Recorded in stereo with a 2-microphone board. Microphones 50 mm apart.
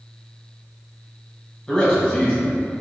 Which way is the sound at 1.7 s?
20° left (ahead or behind).